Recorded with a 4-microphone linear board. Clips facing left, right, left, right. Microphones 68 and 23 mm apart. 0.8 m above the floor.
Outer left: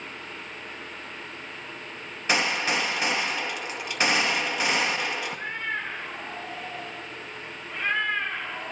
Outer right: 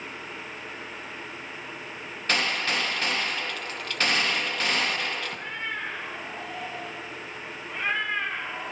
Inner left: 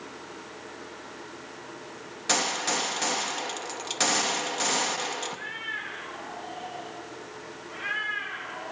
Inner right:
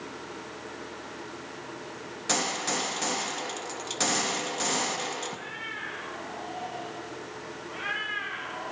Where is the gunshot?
15° left (ahead or behind), 0.7 m.